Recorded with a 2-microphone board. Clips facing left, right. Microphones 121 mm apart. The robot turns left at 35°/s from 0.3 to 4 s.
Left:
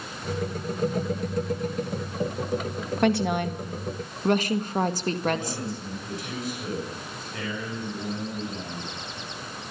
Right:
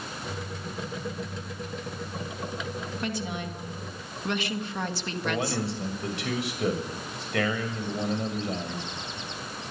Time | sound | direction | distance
3.0 | a woman speaking | 80° left | 1.8 m
5.2 | a man speaking | 85° right | 7 m